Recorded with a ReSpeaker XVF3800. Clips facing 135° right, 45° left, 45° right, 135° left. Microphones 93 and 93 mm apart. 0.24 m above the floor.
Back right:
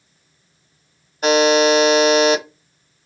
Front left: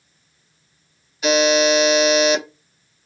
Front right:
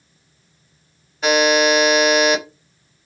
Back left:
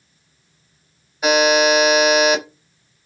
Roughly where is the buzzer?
Behind right.